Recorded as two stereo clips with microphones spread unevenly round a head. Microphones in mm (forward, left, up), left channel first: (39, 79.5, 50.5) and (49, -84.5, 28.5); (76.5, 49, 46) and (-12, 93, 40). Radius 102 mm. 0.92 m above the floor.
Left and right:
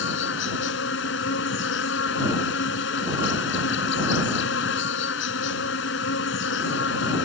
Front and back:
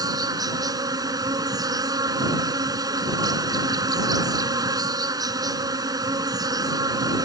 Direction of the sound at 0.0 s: 105° left.